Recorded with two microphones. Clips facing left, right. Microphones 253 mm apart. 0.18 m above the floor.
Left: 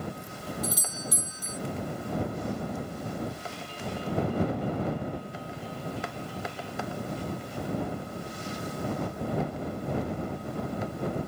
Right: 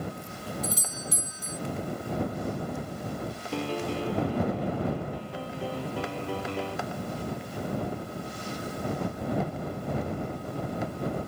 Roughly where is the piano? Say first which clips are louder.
Right 7 dB; right.